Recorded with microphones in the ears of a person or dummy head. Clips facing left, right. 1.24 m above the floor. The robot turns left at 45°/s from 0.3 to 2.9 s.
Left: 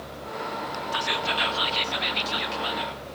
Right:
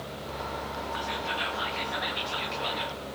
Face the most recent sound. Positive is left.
turn(degrees=-5)